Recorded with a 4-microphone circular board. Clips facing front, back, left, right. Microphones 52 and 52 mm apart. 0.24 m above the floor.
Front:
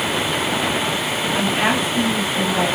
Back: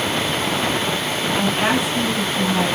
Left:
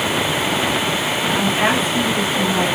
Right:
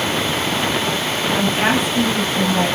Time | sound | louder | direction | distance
1.4 | a woman speaking | even, even | 25° right | 1.1 m